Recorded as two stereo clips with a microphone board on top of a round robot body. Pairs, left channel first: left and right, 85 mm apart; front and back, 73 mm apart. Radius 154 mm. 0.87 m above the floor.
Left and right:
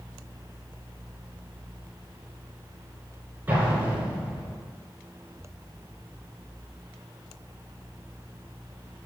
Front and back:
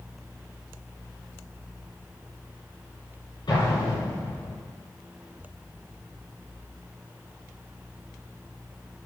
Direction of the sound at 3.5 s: 25° right.